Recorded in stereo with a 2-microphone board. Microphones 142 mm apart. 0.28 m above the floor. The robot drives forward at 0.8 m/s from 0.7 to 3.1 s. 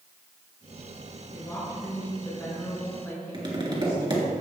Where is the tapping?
35° right (ahead or behind), 3 m.